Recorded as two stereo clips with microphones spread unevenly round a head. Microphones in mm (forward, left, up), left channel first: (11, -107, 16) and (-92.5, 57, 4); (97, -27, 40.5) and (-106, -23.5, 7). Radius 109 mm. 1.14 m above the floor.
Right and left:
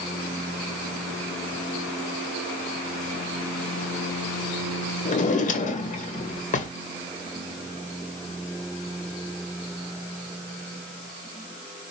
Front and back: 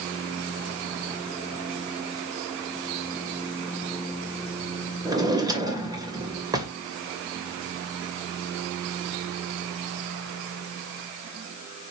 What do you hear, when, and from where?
5.0 s a drawer: 105° right, 2 m